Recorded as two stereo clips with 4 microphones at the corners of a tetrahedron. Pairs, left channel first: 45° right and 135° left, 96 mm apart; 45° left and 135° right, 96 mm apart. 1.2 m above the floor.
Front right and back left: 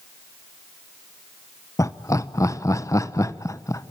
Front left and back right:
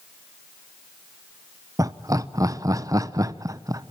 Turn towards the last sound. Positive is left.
turn(degrees=-90)